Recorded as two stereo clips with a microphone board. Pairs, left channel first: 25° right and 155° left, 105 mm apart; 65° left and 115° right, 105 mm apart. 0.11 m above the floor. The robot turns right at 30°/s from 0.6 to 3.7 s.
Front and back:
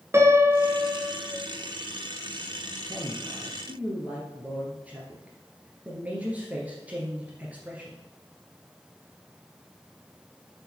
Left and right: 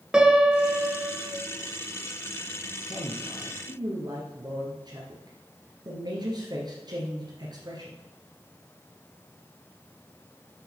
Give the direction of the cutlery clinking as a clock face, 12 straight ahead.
I don't hear cutlery clinking.